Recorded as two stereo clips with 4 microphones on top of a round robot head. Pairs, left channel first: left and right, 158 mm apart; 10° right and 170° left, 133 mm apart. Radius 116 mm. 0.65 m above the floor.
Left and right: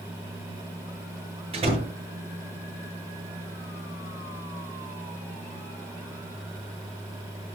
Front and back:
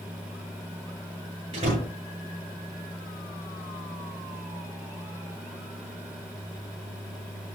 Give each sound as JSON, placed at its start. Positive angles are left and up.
{"t": 1.5, "sound": "a door slam", "azimuth_deg": -140, "distance_m": 7.5}